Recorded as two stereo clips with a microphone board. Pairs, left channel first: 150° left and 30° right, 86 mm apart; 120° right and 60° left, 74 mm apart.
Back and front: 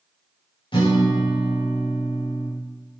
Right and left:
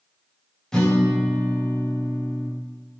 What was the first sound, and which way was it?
A guitar, 160° left.